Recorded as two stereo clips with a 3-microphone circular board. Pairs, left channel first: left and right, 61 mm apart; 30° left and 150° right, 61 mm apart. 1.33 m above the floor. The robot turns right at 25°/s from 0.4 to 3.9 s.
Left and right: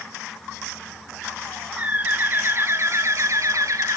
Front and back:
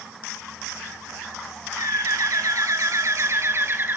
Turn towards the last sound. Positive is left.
turn(degrees=-100)